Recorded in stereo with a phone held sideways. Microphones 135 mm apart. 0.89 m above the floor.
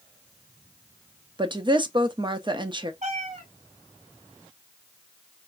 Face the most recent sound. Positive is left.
turn(degrees=-65)  # may be behind; listen again after turning